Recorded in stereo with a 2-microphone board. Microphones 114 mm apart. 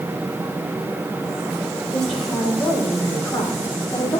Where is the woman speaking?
5° left (ahead or behind), 5.5 m; by 4.2 s 35° left (ahead or behind), 4 m.